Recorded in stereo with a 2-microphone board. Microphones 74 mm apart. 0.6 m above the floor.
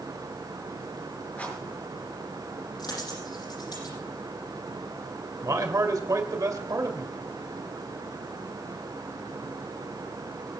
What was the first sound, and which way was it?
A rattle, 20° left (ahead or behind).